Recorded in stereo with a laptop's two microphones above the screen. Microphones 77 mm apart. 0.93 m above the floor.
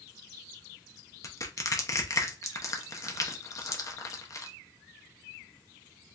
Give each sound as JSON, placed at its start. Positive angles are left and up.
{"t": 1.2, "sound": "crushing", "side_deg": 45, "distance_m": 0.6}